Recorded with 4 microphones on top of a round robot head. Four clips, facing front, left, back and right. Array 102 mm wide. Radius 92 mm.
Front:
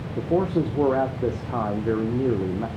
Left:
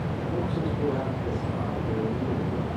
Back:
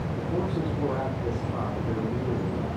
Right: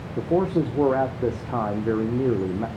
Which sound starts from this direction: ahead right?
A man speaking, at 0.2 s.